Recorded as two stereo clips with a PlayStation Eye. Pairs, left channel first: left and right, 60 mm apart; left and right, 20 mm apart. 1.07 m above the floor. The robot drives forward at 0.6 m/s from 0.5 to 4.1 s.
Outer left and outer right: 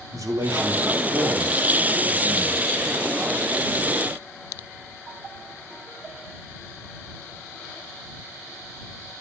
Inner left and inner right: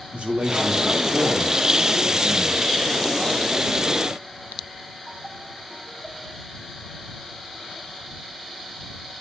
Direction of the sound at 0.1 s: 60° right (ahead or behind).